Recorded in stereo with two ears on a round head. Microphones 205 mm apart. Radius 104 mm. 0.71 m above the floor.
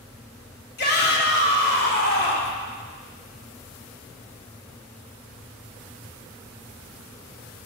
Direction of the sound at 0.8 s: 45° left (ahead or behind).